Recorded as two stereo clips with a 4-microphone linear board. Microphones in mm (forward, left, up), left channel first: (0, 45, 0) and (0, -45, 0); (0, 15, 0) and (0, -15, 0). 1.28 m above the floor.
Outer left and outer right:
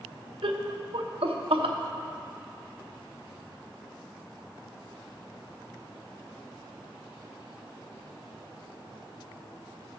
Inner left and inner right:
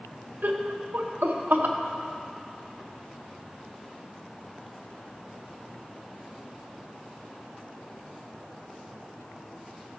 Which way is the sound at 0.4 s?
75° right (ahead or behind).